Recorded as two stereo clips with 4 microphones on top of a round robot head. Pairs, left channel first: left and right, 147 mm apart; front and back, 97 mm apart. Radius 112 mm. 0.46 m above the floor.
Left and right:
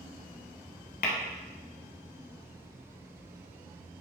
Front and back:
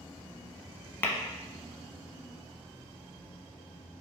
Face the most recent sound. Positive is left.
turn(degrees=65)